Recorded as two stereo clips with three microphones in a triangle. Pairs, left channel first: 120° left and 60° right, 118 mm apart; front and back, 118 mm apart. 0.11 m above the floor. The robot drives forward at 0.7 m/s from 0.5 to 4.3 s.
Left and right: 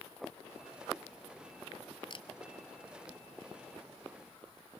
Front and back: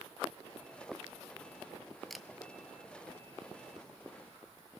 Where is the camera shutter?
90° left, 0.8 m; by 2.3 s 100° left, 0.8 m.